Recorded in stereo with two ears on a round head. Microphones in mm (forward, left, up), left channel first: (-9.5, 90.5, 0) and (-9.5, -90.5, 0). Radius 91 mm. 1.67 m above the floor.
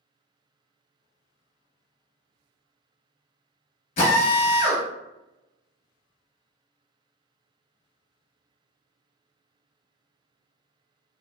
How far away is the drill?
About 1.0 m.